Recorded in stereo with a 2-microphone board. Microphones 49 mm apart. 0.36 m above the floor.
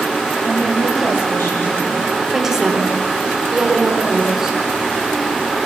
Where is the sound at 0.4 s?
50° left (ahead or behind), 9 m.